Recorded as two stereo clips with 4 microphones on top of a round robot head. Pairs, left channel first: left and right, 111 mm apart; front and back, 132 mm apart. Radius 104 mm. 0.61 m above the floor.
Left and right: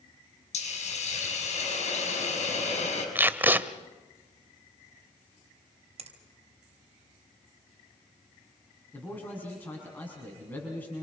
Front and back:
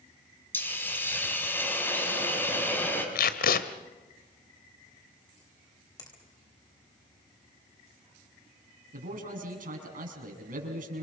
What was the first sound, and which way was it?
A hiss, 75° left.